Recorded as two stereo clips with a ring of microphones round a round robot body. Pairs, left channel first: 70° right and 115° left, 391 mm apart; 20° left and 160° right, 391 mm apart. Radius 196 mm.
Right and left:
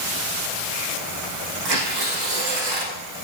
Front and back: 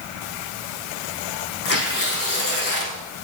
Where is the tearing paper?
80° left, 6 m.